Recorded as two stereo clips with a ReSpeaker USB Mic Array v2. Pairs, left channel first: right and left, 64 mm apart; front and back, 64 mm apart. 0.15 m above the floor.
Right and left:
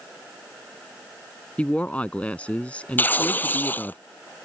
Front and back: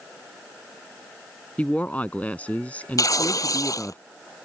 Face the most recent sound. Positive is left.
turn(degrees=-30)